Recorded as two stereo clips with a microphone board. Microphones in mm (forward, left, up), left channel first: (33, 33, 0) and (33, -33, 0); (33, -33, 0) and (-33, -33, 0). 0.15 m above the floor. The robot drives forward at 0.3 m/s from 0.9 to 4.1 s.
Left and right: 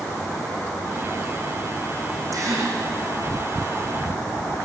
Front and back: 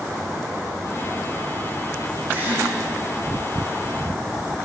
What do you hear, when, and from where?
2.3 s a gasp: 120° right, 7.5 m